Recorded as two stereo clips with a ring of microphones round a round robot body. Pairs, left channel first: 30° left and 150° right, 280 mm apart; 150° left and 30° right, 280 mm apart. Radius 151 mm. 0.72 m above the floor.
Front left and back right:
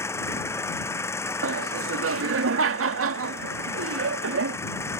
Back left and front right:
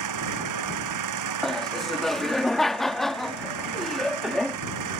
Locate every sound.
0.0 s an engine running: 50° right
1.4 s laughter: 120° right